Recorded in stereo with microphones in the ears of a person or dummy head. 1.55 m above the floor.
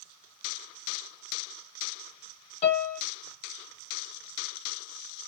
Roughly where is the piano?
Left.